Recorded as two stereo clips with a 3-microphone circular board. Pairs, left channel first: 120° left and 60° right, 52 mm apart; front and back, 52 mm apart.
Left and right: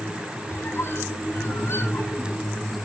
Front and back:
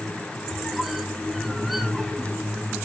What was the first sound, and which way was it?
A squeak, 95° left.